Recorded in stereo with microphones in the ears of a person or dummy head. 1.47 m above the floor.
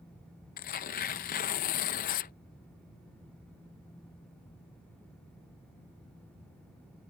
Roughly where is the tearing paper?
Left.